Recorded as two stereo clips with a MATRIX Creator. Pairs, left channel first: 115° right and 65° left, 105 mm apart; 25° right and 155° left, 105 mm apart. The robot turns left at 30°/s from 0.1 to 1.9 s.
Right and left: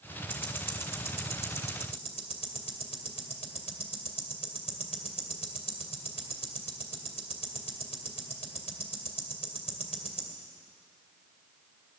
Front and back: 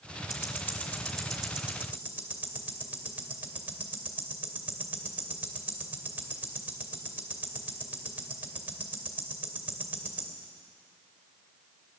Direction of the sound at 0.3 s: 85° right.